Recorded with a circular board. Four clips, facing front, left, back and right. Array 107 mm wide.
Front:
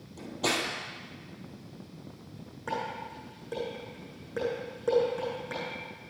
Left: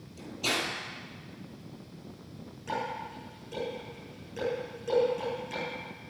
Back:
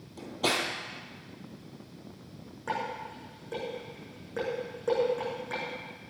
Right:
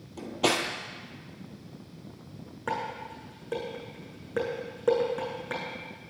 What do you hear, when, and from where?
0.2 s cutlery clinking: 100° right, 2 m
2.7 s dishes clattering: 90° right, 7.5 m